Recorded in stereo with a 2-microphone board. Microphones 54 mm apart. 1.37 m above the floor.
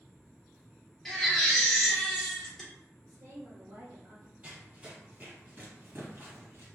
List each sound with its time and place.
1.1 s a baby crying: 5° left (ahead or behind), 1.0 m
3.1 s a woman speaking: 70° right (ahead or behind), 1.1 m
4.4 s running footsteps: 25° right (ahead or behind), 2.0 m; by 6.7 s 45° right (ahead or behind), 1.9 m